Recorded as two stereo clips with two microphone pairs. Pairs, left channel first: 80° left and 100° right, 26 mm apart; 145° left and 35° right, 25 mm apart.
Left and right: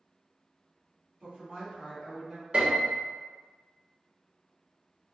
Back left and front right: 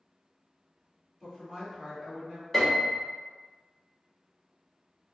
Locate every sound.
1.2 s a woman speaking: 100° right, 1.4 m; by 2.4 s 45° right, 1.2 m
2.5 s a piano: 130° right, 0.9 m